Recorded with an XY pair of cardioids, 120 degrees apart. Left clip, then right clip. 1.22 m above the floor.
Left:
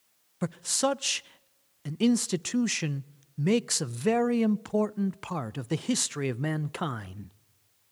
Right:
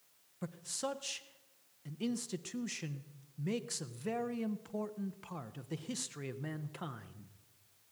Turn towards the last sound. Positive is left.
turn(degrees=65)